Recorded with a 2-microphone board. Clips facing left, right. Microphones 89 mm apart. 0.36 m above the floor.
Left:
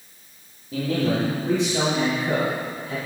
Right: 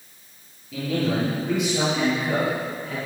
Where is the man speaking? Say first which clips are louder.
Left 1 dB; 35° left (ahead or behind), 7.5 m; by 3.0 s 20° left (ahead or behind), 7.5 m.